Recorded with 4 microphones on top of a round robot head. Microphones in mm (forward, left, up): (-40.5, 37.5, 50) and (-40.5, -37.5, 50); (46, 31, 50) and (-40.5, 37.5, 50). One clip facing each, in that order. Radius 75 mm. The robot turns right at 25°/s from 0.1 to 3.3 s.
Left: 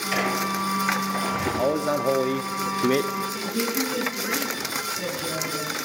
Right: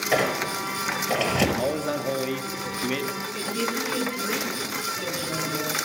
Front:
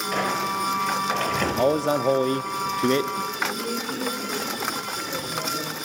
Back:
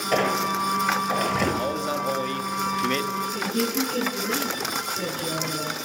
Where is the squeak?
130° right, 6 m; by 1.5 s 100° right, 6 m.